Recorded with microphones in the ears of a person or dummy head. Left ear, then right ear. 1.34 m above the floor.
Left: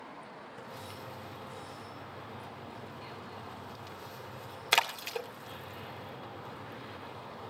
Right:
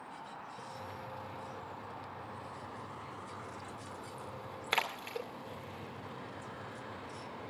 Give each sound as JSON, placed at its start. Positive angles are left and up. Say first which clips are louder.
{"t": 0.6, "sound": "a splash", "louder": "left 2 dB", "side_deg": 25, "distance_m": 2.5}